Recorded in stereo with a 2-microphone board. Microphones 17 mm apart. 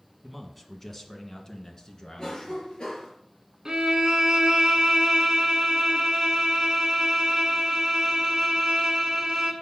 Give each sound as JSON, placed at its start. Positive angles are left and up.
{"t": 0.2, "sound": "a man speaking", "side_deg": 0, "distance_m": 1.3}
{"t": 2.2, "sound": "a cough", "side_deg": 35, "distance_m": 3.5}
{"t": 3.6, "sound": "a violin", "side_deg": -40, "distance_m": 1.7}